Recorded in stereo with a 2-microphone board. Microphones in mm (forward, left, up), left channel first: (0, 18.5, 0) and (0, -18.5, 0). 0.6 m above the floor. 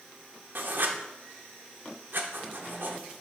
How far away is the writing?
About 0.8 m.